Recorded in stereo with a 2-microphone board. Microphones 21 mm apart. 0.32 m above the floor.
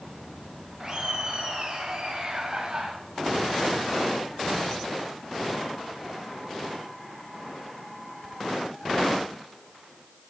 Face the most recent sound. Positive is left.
turn(degrees=-35)  # may be behind; listen again after turning